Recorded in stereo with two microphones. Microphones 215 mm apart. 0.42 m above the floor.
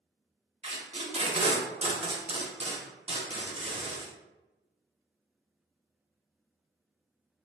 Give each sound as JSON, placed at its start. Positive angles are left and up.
{"t": 0.6, "sound": "tape being pulled", "side_deg": -30, "distance_m": 0.7}